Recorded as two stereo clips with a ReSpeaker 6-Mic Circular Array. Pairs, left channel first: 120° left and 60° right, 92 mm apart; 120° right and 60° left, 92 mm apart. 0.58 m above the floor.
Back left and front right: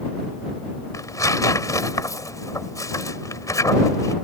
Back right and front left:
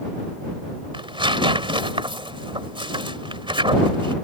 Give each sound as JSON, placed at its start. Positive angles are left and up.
{"t": 0.9, "sound": "tearing paper", "azimuth_deg": 70}